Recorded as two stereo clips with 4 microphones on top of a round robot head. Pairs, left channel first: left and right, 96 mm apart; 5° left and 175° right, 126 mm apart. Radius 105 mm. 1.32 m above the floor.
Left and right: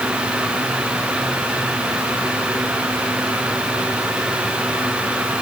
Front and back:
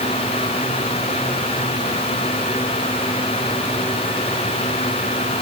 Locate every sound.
Only background noise.